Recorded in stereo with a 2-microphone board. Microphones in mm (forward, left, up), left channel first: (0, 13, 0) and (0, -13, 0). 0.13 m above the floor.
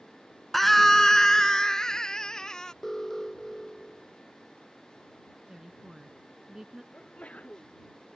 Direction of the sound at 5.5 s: 25° right (ahead or behind).